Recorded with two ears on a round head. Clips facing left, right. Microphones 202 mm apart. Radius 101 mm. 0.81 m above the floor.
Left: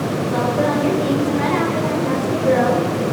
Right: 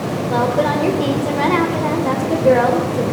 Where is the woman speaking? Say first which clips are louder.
Right 2 dB; 65° right (ahead or behind), 4 m.